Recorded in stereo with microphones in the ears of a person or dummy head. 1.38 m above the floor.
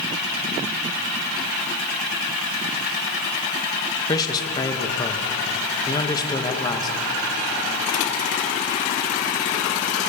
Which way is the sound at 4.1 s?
25° left (ahead or behind).